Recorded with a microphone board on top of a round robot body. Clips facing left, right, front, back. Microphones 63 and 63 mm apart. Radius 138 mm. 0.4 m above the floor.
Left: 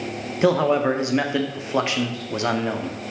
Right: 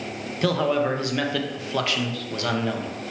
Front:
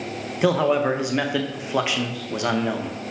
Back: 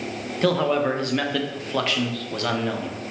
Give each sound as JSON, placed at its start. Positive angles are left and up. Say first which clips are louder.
{"t": 0.4, "sound": "a man speaking", "louder": "left 4 dB, front 2 dB", "azimuth_deg": 60, "distance_m": 0.8}